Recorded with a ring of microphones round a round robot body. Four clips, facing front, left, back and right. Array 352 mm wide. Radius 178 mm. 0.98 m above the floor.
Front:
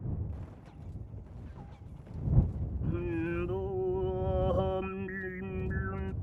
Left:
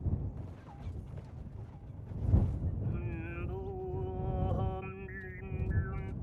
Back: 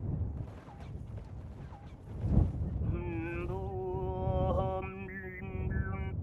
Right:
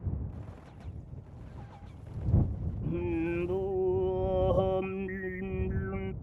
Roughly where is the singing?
Ahead right.